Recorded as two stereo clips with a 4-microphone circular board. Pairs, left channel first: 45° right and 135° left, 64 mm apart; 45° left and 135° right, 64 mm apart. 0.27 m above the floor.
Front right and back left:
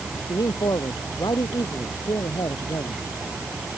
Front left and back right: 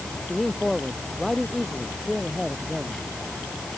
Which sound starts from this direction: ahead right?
A man speaking, at 0.3 s.